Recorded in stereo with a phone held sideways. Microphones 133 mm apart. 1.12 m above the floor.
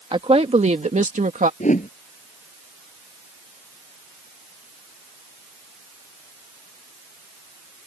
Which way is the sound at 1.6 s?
70° left (ahead or behind).